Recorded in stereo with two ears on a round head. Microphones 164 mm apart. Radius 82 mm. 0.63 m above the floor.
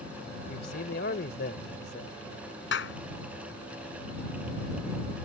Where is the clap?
70° left (ahead or behind).